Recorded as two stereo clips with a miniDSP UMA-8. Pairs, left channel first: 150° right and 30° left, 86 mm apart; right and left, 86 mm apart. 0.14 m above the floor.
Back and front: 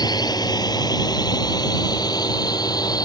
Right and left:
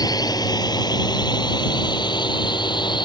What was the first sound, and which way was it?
A drone, 125° right.